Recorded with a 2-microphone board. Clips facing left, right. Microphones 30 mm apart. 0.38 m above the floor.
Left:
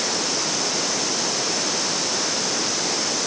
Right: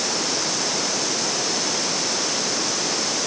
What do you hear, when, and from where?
Only background noise.